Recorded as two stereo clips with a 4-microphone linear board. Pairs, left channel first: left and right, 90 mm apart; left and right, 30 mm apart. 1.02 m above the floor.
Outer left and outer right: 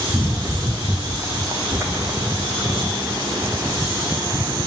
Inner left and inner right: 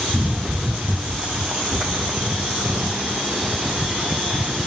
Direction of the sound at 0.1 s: 30° right (ahead or behind).